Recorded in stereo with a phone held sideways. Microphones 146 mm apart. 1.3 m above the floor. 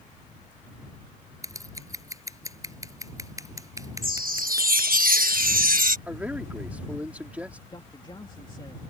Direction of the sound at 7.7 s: 30° left (ahead or behind).